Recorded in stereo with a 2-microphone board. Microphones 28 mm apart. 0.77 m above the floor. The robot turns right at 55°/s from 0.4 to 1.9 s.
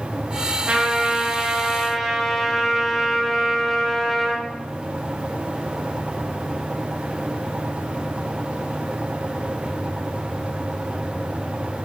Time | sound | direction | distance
0.7 | a trumpet | 70° right | 0.8 m